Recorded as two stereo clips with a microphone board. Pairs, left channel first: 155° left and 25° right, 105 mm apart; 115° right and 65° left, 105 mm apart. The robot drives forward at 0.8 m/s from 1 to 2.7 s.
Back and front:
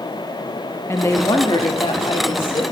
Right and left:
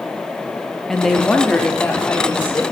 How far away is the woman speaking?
About 0.7 m.